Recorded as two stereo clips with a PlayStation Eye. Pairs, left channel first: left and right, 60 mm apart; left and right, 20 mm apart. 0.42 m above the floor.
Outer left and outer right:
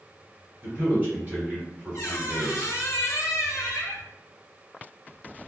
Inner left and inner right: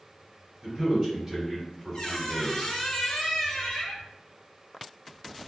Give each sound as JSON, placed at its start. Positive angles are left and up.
{"t": 0.6, "sound": "a man speaking", "side_deg": -35, "distance_m": 1.7}
{"t": 1.9, "sound": "a squeak", "side_deg": 55, "distance_m": 0.9}